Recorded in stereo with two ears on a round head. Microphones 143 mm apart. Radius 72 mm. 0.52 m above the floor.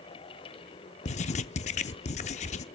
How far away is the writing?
About 0.5 m.